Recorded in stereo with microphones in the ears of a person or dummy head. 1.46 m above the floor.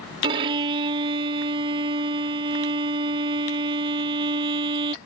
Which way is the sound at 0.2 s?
30° right (ahead or behind).